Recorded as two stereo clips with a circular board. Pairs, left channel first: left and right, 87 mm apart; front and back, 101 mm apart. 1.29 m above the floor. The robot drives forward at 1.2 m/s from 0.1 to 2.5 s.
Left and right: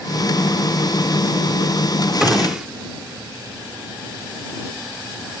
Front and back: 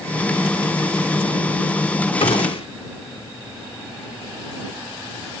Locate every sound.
2.2 s a gunshot: 5° right; by 2.7 s 10° right